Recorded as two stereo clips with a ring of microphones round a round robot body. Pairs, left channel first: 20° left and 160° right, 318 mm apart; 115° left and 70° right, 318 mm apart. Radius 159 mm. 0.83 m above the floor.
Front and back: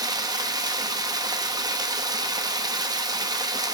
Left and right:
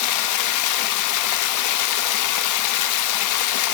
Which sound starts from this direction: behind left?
Running water, at 0.0 s.